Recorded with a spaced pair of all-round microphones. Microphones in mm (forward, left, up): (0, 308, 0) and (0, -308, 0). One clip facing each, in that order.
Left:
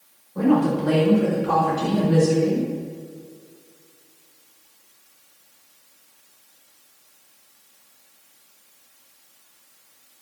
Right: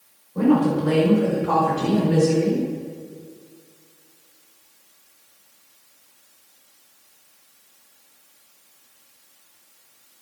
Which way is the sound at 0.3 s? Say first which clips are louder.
Right 1 dB; 55° right (ahead or behind).